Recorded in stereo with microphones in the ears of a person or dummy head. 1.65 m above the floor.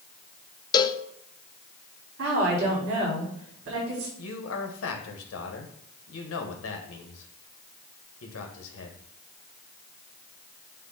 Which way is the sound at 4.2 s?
80° left.